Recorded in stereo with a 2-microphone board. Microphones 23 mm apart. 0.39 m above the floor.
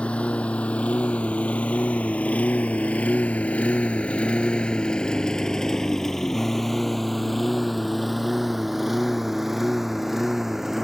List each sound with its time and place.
0.0 s a lawn mower: 55° left (ahead or behind); by 10.9 s 10° right (ahead or behind)